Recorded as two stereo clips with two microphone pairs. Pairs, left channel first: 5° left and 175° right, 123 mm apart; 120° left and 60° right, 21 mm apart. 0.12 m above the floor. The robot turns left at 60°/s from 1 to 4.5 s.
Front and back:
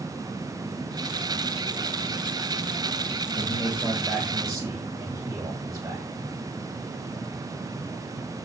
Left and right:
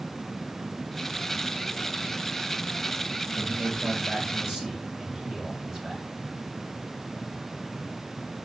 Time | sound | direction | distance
3.4 | a man speaking | 40° right | 4 m